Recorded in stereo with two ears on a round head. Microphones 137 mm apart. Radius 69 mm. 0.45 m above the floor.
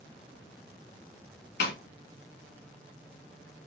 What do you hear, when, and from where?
1.6 s a snare drum: 70° left (ahead or behind), 0.9 m